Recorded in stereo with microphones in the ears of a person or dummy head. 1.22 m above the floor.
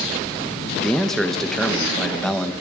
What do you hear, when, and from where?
0.8 s a man speaking: 10° left (ahead or behind), 0.9 m